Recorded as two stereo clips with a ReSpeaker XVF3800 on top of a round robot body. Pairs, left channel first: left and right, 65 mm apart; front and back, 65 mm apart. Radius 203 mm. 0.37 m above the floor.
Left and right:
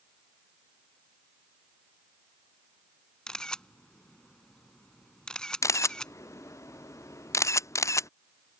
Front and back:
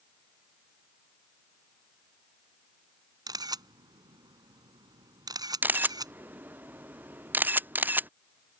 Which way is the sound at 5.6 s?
120° left.